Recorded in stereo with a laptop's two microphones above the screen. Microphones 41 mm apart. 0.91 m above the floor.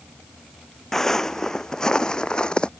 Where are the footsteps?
10° left (ahead or behind); by 2.7 s 25° left (ahead or behind).